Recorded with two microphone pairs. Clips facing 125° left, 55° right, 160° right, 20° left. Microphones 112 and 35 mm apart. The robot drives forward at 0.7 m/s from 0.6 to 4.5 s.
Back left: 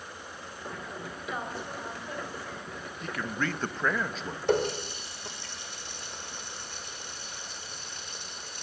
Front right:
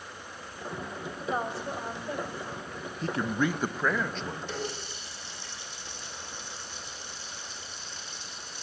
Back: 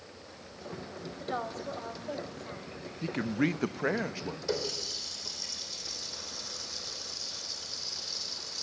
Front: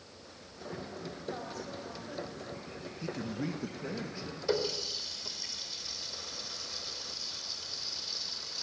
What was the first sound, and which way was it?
A woman speaking, 110° right.